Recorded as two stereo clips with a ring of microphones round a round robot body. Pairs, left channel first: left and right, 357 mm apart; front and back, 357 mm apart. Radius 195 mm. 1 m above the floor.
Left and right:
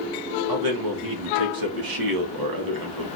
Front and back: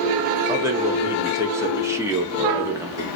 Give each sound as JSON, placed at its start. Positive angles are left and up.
{"t": 0.5, "sound": "a man speaking", "azimuth_deg": -100, "distance_m": 1.7}